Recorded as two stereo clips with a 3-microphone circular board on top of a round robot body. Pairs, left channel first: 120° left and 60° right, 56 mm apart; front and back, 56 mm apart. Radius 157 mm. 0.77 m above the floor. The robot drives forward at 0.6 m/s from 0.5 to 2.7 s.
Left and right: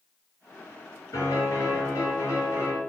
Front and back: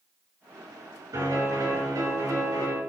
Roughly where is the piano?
Behind left.